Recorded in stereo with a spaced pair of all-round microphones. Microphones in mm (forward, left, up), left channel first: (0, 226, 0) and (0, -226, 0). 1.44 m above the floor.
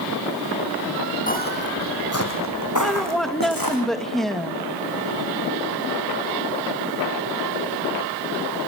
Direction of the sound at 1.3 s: 20° left (ahead or behind).